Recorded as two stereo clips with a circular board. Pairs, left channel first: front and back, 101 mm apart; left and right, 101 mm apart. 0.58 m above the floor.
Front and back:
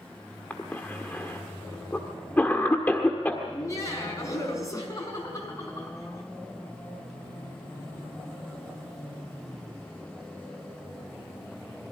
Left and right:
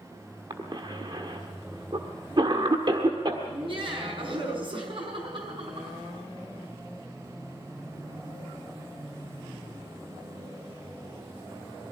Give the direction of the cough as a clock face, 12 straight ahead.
2 o'clock.